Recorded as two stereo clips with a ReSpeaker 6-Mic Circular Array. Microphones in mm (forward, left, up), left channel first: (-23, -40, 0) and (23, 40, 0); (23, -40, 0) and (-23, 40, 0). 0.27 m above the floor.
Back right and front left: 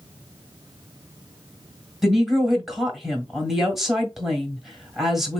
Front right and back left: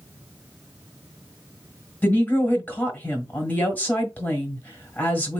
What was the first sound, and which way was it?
A woman speaking, 25° right.